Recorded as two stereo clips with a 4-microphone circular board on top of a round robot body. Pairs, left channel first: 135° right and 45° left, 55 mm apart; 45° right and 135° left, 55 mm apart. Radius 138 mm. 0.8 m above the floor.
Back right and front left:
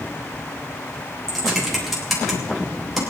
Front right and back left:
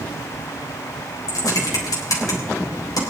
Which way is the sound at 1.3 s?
45° right.